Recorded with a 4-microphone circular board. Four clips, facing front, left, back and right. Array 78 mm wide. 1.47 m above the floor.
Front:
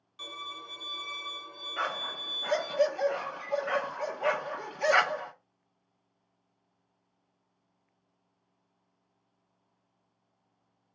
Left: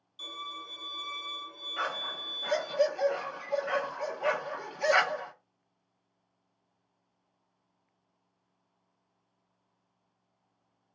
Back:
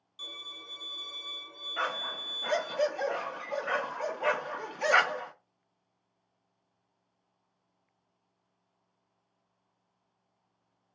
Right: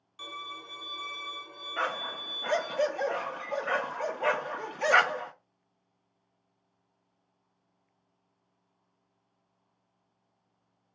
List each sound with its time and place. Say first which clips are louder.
0.2 s a violin: right 1 dB, front 7 dB; 60° right, 1.4 m
1.8 s a dog barking: right 2 dB, even; 100° right, 0.9 m